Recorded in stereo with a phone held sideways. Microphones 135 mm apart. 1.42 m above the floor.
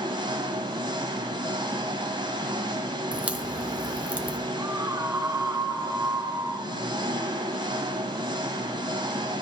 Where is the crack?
10° right (ahead or behind), 0.8 m.